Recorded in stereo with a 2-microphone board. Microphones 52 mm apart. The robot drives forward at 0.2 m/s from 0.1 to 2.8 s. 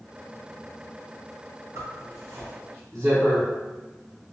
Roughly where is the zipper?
Right.